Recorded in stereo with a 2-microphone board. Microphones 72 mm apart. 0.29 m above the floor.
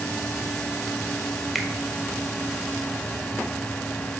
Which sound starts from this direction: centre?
A finger snap, at 1.6 s.